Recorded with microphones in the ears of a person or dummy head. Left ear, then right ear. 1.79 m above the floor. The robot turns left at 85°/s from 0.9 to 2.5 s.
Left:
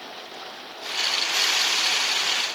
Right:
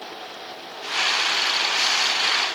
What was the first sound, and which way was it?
Only background noise.